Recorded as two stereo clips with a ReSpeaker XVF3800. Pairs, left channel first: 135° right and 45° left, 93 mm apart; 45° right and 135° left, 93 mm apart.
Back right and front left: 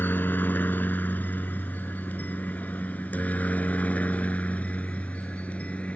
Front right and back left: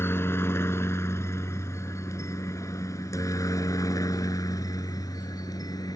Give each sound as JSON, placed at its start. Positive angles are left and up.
{"t": 0.0, "sound": "a helicopter", "azimuth_deg": -85}